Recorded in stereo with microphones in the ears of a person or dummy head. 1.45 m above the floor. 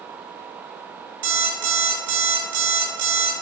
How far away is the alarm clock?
About 0.9 m.